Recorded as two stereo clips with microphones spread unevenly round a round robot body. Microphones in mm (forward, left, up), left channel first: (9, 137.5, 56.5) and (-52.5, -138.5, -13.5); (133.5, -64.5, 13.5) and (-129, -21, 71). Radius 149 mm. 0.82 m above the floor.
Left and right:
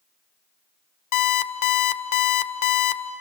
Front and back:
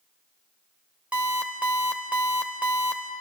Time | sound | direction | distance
1.1 | an alarm clock | 90° left | 1.1 m